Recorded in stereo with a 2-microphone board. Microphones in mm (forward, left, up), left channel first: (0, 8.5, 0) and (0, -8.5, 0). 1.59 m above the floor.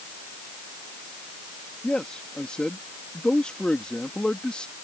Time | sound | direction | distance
1.8 | a man speaking | 85° left | ?